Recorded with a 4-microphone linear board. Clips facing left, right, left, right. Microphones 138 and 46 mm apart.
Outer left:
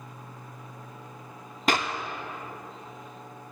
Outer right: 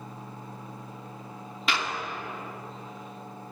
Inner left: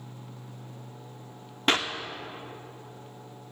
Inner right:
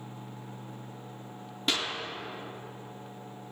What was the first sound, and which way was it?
A clap, 45° left (ahead or behind).